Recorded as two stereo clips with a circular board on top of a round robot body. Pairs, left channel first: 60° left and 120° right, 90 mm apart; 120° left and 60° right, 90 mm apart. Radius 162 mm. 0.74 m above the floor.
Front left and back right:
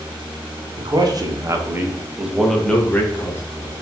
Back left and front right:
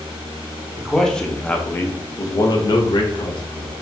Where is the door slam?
I don't hear a door slam.